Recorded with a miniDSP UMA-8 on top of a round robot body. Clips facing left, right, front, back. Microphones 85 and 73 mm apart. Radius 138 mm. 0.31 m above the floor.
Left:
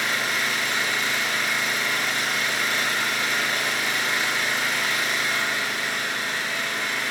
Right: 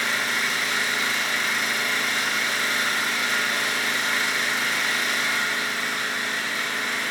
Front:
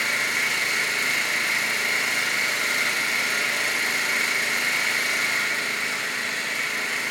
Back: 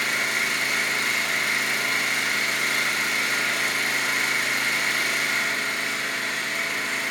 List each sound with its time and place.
0.0 s an engine running: 145° right, 3 m